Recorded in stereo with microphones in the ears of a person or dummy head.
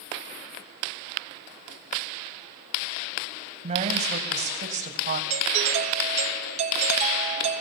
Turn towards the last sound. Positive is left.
turn(degrees=-35)  # may be behind; listen again after turning